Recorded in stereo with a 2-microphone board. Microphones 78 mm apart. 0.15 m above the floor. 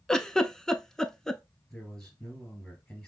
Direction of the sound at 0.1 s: 5° left (ahead or behind).